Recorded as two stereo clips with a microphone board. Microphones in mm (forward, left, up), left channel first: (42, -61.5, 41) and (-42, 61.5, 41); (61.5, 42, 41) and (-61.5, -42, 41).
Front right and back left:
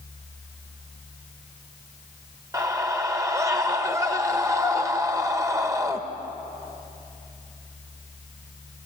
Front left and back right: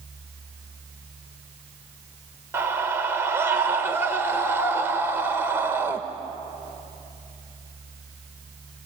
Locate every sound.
2.5 s a scream: 160° left, 1.4 m